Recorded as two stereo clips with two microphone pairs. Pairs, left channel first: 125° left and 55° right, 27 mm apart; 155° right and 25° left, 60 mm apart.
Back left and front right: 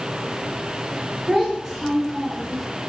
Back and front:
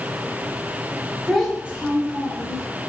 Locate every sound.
1.3 s a child speaking: 65° right, 0.7 m; by 2.7 s 45° left, 1.0 m